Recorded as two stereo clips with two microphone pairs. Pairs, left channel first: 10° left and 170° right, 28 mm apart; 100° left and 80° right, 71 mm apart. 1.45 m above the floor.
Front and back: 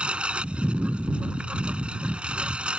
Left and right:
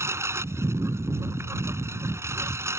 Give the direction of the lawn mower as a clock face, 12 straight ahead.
4 o'clock.